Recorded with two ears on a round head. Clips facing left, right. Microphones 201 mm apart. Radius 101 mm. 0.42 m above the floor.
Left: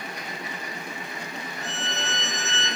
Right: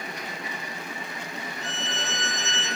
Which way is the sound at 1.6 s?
Centre (ahead or behind).